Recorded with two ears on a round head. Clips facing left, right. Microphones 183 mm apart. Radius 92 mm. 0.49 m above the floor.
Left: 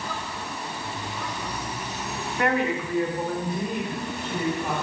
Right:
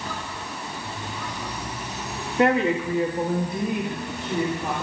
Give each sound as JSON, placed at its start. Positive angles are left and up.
{"t": 2.4, "sound": "a woman speaking", "side_deg": -25, "distance_m": 0.7}